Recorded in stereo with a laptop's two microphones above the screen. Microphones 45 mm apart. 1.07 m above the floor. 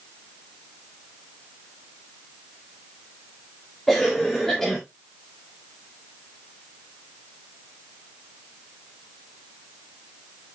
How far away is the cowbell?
No cowbell in this recording.